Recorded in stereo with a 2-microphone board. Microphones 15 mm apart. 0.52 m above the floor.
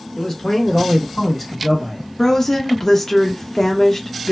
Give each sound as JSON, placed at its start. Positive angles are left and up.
{"t": 0.1, "sound": "a man speaking", "side_deg": 35, "distance_m": 1.4}
{"t": 2.2, "sound": "a woman speaking", "side_deg": 25, "distance_m": 0.6}